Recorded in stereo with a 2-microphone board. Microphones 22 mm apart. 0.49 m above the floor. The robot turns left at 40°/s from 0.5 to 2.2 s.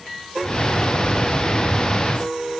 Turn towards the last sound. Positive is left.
No sound to turn to.